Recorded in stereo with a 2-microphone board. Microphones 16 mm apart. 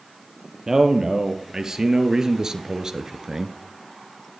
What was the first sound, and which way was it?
A man speaking, 40° right (ahead or behind).